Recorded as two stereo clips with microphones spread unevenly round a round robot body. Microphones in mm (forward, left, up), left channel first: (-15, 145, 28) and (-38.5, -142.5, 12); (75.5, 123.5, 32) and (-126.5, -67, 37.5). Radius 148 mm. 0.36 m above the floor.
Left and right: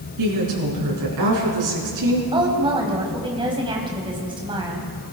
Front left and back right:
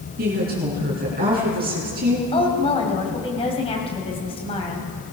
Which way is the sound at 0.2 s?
80° right.